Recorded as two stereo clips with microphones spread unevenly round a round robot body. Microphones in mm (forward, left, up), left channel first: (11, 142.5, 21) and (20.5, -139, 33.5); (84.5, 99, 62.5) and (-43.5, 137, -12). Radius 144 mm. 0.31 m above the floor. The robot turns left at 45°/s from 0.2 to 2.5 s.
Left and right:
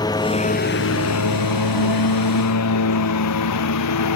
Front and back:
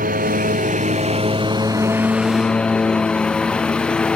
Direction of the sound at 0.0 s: 170° left.